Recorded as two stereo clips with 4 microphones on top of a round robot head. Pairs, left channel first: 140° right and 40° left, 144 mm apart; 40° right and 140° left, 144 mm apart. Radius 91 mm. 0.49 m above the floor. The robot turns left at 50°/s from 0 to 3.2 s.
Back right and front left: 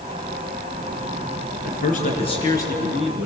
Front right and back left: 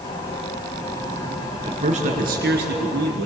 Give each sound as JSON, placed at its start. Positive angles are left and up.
{"t": 1.6, "sound": "a man speaking", "azimuth_deg": -160, "distance_m": 7.0}